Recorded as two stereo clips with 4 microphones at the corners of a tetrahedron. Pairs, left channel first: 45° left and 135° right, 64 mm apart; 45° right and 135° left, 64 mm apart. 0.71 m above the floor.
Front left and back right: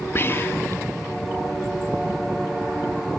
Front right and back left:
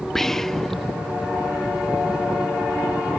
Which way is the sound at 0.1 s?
40° left.